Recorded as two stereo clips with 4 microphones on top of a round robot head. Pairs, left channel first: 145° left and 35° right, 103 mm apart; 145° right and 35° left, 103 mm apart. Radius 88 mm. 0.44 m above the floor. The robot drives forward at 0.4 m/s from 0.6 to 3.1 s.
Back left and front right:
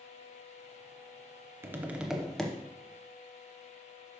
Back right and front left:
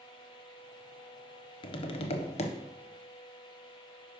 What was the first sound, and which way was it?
Tapping, 100° right.